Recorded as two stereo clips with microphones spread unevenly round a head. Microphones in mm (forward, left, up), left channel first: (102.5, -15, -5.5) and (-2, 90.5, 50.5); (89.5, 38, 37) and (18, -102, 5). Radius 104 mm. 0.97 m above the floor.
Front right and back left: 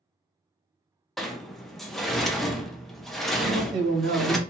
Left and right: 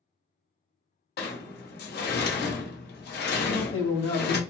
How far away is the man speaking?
About 1.1 m.